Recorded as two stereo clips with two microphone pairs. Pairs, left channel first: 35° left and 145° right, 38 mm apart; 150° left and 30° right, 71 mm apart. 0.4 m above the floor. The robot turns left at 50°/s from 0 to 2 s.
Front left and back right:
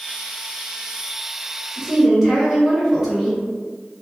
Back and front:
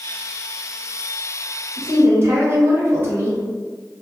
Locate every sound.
1.8 s a woman speaking: 55° right, 1.1 m; by 3.4 s 65° right, 1.1 m